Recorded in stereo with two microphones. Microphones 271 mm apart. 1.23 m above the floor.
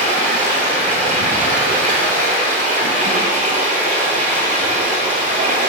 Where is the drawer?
No drawer in this recording.